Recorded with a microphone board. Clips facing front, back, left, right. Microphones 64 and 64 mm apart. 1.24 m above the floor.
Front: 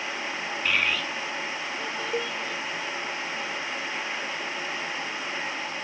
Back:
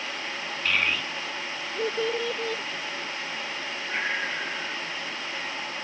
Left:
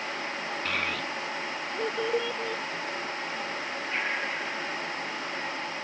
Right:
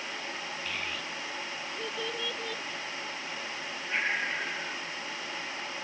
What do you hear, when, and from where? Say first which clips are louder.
0.7 s a child speaking: even, left 7 dB; 80° left; by 2.6 s 165° left
2.1 s a cowbell: even, left 8 dB; 80° left
3.9 s breathing: back 3 dB, right 1 dB; 170° right